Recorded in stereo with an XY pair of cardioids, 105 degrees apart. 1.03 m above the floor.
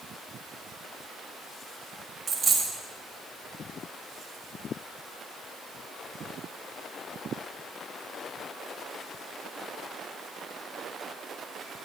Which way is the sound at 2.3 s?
35° right.